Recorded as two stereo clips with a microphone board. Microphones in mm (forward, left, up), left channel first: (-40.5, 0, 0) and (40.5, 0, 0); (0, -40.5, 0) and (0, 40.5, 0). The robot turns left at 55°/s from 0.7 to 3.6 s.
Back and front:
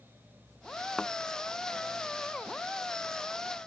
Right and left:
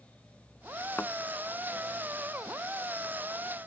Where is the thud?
100° right; by 1.1 s 105° right.